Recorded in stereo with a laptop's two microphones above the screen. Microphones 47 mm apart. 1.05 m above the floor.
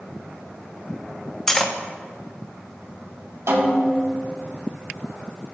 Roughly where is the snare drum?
Right.